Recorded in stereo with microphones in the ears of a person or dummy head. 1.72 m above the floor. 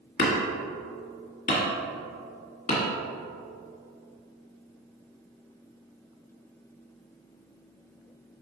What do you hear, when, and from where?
0.2 s hammering: 40° left (ahead or behind), 1.5 m